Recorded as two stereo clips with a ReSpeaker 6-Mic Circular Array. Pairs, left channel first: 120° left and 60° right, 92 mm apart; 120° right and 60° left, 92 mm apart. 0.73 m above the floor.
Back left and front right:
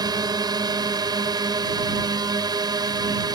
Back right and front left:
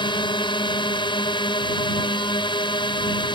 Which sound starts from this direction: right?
A drone, at 0.0 s.